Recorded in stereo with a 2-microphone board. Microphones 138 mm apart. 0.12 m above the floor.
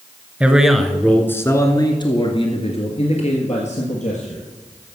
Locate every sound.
0.4 s a man speaking: 10° right (ahead or behind), 1.3 m; by 5.0 s 65° left (ahead or behind), 3 m